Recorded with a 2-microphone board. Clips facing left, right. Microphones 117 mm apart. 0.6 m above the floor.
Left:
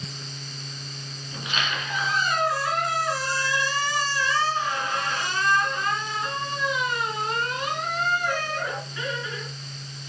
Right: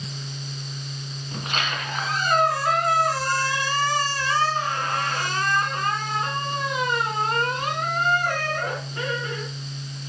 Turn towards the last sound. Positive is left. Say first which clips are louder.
# right 1 dB
turn(degrees=-45)  # may be behind; listen again after turning